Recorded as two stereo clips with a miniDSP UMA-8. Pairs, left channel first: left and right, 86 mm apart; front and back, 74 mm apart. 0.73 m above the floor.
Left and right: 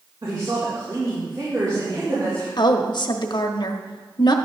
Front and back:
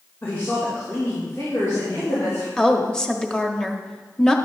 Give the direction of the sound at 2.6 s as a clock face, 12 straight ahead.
9 o'clock.